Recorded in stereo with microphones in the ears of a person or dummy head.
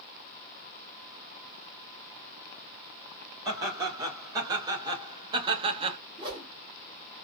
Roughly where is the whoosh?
Right.